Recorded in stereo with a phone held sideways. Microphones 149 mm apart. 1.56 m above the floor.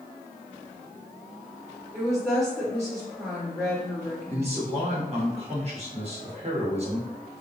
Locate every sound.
1.9 s a woman speaking: 10° left (ahead or behind), 1.5 m
4.3 s a man speaking: 40° right (ahead or behind), 1.5 m